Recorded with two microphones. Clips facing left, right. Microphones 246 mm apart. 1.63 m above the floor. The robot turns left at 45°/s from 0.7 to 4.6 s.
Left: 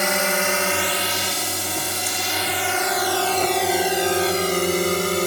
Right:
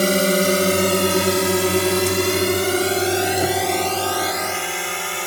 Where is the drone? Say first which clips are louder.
Right 7 dB; 40° right (ahead or behind); by 5.3 s 45° left (ahead or behind).